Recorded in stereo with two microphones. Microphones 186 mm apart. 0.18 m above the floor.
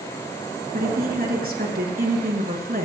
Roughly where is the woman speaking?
Right.